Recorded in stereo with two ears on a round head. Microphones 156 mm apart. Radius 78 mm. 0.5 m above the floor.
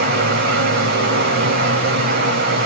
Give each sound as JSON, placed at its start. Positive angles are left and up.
{"t": 0.0, "sound": "running water", "side_deg": -70, "distance_m": 2.5}